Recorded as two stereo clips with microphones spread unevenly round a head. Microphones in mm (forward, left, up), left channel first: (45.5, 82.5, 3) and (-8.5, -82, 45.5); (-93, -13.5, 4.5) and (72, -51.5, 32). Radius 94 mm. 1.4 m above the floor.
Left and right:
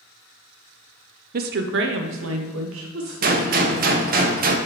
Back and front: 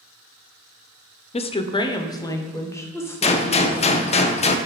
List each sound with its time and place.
1.3 s a woman speaking: 150° right, 0.5 m; by 4.2 s 115° right, 2 m
3.2 s a gunshot: 135° right, 0.5 m